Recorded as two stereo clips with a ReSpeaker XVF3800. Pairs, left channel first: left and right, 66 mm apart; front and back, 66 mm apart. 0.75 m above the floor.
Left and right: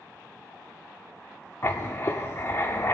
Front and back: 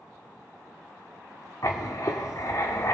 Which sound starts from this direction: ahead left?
Writing, at 1.6 s.